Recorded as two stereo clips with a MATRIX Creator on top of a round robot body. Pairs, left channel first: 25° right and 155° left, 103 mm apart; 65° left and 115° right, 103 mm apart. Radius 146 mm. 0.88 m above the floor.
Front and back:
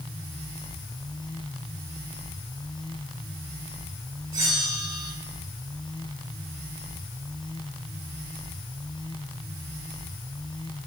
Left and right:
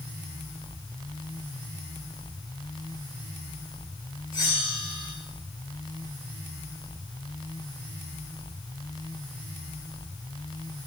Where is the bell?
110° left, 7 m.